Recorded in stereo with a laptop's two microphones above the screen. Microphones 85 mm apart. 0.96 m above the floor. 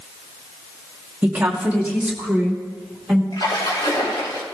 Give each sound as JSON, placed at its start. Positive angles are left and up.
{"t": 1.2, "sound": "a woman speaking", "side_deg": -15, "distance_m": 1.1}
{"t": 3.3, "sound": "a splash", "side_deg": 60, "distance_m": 1.8}